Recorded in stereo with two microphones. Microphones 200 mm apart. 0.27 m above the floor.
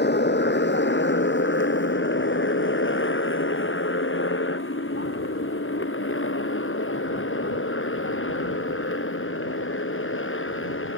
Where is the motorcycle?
60° left (ahead or behind); by 11.0 s 85° left.